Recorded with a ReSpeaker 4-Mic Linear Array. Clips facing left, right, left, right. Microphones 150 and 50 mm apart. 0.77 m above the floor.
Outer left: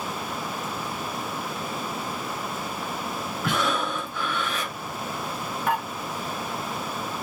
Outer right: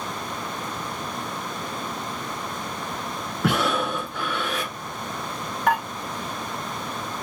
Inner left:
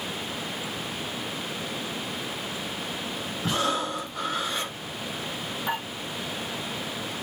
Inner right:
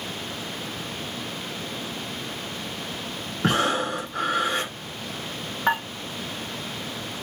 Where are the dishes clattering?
75° right (ahead or behind), 3 m.